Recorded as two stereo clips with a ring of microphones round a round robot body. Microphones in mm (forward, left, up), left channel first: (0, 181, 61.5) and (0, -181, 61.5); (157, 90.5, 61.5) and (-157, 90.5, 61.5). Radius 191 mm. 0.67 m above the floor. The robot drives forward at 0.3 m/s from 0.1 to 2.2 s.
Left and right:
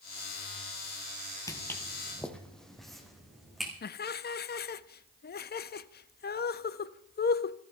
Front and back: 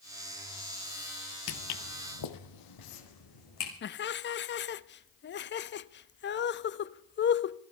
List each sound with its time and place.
1.5 s footsteps: 10° left, 0.8 m; by 3.7 s straight ahead, 3 m
3.8 s laughter: 40° left, 0.6 m